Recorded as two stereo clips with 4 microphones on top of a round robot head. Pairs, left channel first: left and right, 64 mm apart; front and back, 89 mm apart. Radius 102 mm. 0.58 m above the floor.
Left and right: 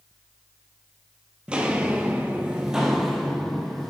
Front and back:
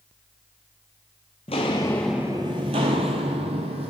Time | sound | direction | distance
1.5 | footsteps | 20° right | 0.7 m